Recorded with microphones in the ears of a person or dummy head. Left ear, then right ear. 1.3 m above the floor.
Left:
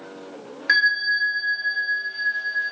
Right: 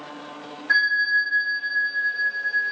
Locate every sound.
0.7 s a bell: 65° left (ahead or behind), 0.6 m